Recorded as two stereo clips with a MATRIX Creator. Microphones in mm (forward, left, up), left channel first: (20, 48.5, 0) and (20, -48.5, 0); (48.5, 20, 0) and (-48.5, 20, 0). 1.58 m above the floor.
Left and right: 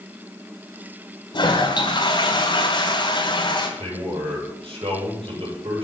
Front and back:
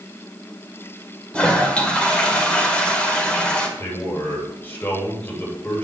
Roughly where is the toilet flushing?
Left.